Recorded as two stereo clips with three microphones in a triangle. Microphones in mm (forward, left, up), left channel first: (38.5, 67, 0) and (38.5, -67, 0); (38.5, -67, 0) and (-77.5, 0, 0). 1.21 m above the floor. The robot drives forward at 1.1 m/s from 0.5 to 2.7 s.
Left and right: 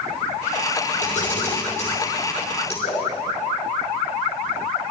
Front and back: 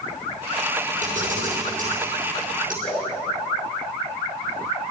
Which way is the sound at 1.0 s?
120° left.